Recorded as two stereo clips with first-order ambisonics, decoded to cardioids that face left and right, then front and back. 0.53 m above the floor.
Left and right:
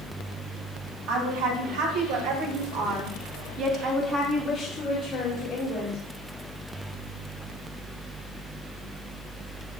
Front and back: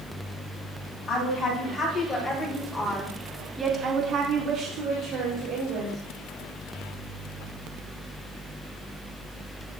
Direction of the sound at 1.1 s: 65° right.